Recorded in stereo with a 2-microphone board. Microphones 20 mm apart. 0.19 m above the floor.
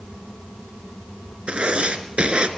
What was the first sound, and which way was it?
Writing, 55° right (ahead or behind).